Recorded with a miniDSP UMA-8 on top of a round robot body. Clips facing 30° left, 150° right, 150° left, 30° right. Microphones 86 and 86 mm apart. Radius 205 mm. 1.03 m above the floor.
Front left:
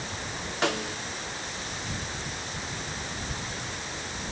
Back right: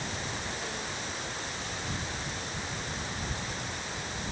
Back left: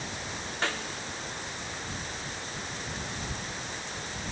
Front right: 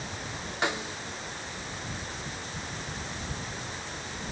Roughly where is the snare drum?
Ahead left.